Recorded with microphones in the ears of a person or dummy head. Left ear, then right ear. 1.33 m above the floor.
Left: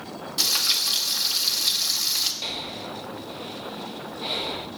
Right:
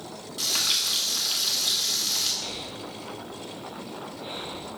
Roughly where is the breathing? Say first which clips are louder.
Left 4 dB; left.